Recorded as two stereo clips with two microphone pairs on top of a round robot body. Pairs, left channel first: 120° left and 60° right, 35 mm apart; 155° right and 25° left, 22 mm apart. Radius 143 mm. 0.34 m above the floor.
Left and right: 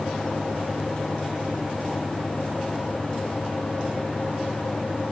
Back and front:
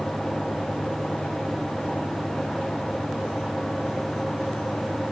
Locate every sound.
Only background noise.